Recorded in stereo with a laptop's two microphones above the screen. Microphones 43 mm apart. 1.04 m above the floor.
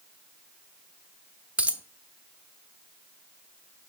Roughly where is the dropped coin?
Right.